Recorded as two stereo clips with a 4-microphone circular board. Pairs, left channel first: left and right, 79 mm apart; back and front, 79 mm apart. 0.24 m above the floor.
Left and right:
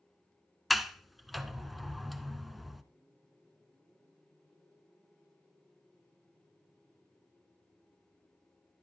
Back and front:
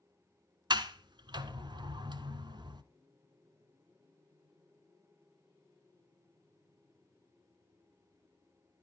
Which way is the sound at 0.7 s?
Straight ahead.